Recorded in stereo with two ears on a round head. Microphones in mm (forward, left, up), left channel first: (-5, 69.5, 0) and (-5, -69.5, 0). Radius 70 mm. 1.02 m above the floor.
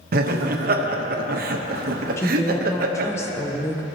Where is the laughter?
60° right (ahead or behind), 0.8 m.